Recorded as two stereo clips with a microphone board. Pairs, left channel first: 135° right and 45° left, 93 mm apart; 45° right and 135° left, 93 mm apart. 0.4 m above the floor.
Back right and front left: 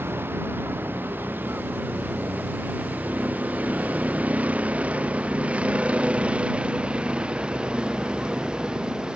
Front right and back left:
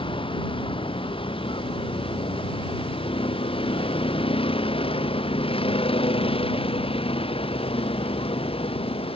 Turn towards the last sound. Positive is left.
turn(degrees=-35)